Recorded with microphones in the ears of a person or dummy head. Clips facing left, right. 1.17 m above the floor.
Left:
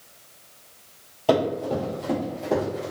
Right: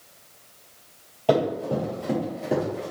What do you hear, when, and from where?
1.3 s running footsteps: 5° left (ahead or behind), 1.4 m; by 2.9 s 20° right (ahead or behind), 1.2 m